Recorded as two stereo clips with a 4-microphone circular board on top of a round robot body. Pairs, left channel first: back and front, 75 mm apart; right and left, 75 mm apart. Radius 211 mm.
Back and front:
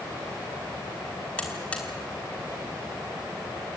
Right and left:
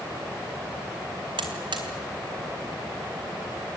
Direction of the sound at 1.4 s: 105° left.